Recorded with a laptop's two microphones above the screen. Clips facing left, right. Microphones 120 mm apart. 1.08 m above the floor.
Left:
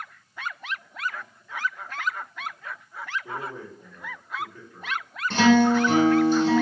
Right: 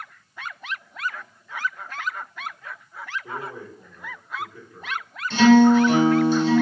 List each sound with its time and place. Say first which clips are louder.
3.2 s a man speaking: right 1 dB; 5° right (ahead or behind), 1.6 m
5.3 s a guitar: right 4 dB; 50° left (ahead or behind), 1.3 m